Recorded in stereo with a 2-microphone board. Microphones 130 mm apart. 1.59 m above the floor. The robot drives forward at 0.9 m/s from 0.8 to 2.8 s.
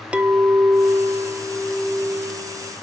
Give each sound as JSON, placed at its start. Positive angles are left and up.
{"t": 0.1, "sound": "a clink", "side_deg": -10, "distance_m": 0.6}